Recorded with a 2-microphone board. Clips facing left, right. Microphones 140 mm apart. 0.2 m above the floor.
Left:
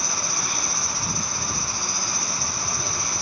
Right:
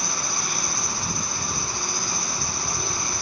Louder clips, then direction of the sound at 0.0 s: Even; 25° right (ahead or behind).